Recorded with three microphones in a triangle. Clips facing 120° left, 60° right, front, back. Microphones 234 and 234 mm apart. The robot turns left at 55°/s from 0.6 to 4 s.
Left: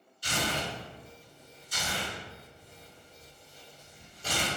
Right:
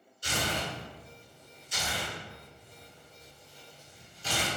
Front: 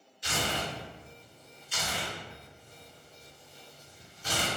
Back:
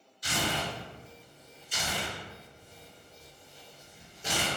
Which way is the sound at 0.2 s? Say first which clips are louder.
Left 1 dB, back 1 dB; 50° right.